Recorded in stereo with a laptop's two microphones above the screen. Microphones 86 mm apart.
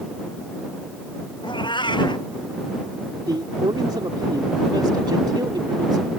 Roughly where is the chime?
I don't hear a chime.